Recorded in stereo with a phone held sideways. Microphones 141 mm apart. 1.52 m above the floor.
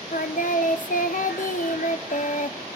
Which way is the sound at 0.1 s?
65° left (ahead or behind).